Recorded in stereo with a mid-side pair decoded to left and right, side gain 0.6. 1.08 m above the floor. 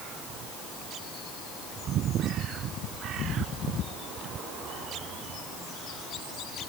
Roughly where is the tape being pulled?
I don't hear tape being pulled.